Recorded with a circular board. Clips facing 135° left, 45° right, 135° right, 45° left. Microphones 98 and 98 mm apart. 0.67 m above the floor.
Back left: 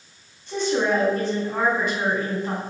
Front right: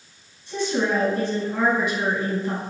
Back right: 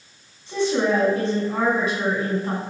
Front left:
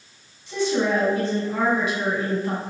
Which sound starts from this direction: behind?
A woman speaking, at 0.5 s.